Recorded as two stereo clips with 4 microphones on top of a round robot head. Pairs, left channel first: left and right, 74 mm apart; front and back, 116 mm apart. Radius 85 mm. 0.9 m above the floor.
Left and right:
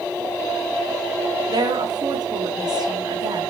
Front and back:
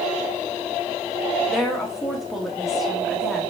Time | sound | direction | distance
1.5 | a woman speaking | 90° right | 1.6 m